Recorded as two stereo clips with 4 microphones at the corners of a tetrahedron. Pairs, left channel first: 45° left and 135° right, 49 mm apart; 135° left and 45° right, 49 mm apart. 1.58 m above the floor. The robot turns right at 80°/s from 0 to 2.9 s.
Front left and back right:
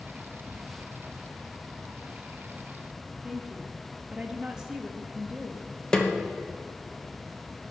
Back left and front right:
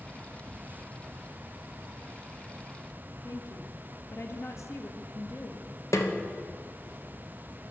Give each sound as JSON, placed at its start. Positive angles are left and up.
{"t": 3.2, "sound": "a woman speaking", "azimuth_deg": 150, "distance_m": 1.5}
{"t": 5.9, "sound": "a snare drum", "azimuth_deg": 120, "distance_m": 1.2}